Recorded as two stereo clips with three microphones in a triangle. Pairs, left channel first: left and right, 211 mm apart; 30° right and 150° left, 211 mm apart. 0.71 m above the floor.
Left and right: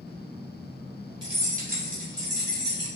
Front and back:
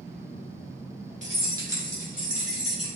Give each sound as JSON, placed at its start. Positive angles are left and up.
{"t": 1.2, "sound": "keys jangling", "azimuth_deg": -155, "distance_m": 1.3}